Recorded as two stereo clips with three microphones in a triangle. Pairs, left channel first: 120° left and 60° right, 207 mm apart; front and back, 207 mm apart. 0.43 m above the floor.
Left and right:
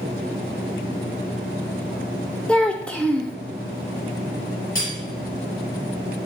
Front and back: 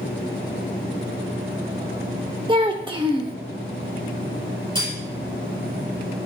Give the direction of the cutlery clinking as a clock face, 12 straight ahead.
8 o'clock.